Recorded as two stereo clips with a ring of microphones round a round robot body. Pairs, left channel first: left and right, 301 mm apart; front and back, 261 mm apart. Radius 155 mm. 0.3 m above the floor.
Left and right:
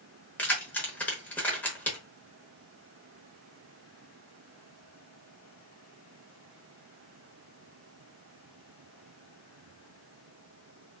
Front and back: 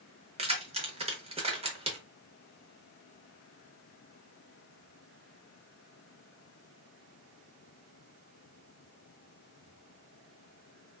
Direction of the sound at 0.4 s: 165° left.